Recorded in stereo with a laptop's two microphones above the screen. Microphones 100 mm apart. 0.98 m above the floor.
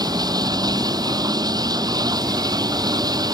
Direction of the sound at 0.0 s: 45° right (ahead or behind).